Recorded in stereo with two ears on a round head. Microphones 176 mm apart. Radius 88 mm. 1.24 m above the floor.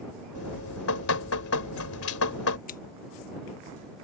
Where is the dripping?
85° left.